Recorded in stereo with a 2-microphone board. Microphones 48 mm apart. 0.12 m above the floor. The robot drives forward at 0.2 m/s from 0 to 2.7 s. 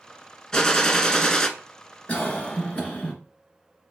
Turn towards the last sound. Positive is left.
turn(degrees=30)  # may be behind; listen again after turning